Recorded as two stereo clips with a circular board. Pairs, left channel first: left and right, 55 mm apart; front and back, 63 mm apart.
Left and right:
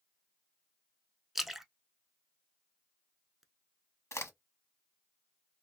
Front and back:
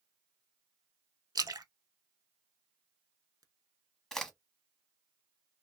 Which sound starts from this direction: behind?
A splash, at 1.4 s.